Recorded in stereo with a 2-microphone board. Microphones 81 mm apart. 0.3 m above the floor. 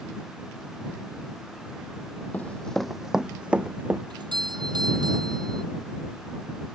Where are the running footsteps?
25° left (ahead or behind); by 4.0 s 20° right (ahead or behind).